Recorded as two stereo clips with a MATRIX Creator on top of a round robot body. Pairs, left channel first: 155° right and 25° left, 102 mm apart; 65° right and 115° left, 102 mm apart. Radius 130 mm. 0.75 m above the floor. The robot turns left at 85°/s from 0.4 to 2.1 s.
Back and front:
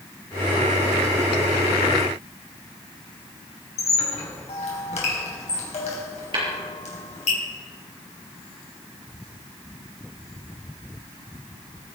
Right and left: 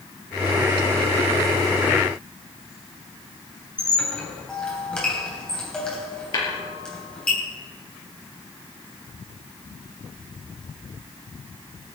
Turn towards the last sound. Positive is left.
turn(degrees=-20)